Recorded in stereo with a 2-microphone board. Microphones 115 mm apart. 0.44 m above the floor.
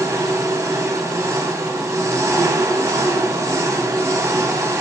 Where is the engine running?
25° right (ahead or behind), 0.8 m.